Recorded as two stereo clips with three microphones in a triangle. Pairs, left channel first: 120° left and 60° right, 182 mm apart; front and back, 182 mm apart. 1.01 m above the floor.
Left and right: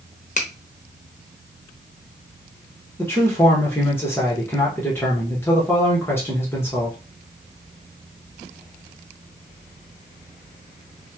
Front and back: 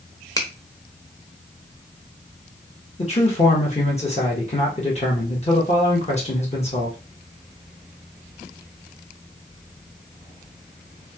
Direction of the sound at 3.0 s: 45° left.